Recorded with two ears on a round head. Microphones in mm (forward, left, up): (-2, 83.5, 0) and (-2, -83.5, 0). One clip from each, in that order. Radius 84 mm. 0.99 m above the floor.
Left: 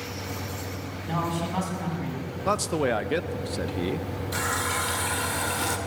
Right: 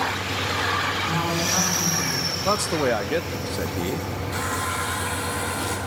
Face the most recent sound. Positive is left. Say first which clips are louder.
# even
turn(degrees=25)  # may be behind; listen again after turning